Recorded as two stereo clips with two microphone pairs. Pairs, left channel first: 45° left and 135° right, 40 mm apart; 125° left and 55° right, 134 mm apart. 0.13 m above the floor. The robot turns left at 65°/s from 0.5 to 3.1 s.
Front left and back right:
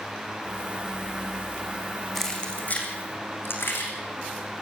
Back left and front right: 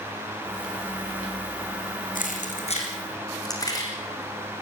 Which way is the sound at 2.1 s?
125° left.